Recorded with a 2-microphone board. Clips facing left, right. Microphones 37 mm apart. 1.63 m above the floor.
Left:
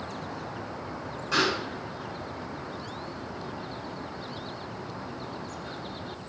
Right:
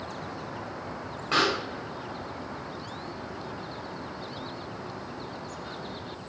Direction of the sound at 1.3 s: 45° right (ahead or behind).